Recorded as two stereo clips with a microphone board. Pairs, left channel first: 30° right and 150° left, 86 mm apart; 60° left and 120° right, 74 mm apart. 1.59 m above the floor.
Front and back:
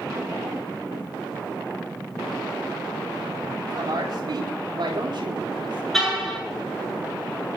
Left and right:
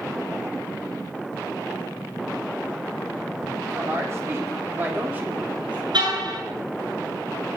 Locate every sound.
3.7 s a woman speaking: 170° right, 5 m; by 5.8 s 165° left, 3.5 m
5.9 s a car horn: 120° right, 8.5 m